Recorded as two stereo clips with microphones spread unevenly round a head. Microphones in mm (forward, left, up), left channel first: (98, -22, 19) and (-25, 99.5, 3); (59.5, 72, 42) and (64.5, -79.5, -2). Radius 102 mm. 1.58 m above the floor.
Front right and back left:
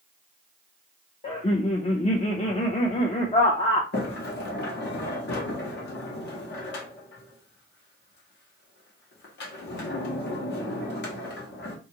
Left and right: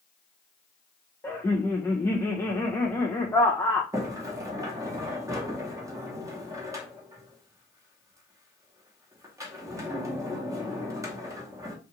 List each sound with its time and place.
1.2 s laughter: 15° left, 0.5 m
3.9 s a sliding door: 20° right, 0.9 m